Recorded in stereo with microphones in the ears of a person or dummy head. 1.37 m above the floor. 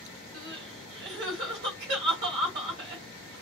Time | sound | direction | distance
0.3 | crying | 60° right (ahead or behind) | 1.5 m